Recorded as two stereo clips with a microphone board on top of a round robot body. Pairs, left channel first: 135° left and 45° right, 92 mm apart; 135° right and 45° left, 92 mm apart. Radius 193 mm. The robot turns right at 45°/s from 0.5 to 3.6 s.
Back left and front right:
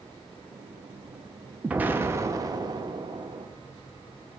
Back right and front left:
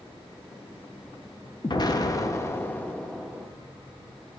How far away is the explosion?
About 1.0 m.